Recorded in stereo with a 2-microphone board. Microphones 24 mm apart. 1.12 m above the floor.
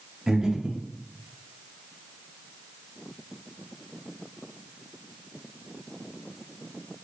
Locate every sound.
0.3 s breathing: 25° right (ahead or behind), 0.7 m